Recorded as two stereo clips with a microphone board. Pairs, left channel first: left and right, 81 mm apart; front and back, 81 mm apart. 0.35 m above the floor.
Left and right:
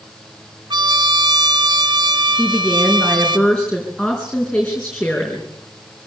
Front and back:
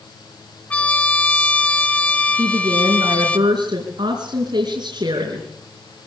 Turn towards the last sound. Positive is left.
turn(degrees=175)